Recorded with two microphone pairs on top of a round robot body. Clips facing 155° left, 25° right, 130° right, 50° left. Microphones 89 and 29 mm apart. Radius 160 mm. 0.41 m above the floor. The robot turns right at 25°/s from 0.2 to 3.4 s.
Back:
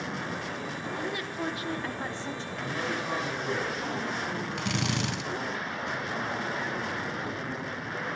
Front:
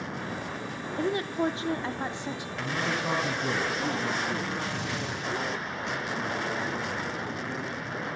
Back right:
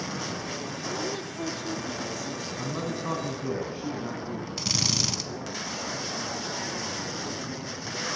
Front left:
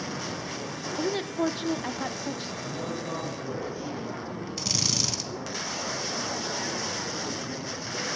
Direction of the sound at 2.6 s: 100° right.